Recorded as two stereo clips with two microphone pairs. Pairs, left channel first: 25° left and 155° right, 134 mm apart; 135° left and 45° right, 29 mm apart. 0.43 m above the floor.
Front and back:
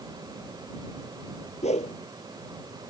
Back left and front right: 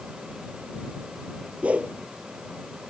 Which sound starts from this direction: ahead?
A whoosh, at 1.6 s.